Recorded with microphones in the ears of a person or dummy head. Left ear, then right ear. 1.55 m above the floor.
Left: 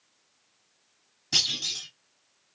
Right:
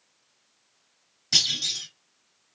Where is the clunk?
20° right (ahead or behind), 2.5 m.